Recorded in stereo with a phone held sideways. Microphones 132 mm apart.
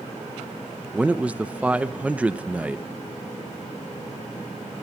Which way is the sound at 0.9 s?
10° right (ahead or behind).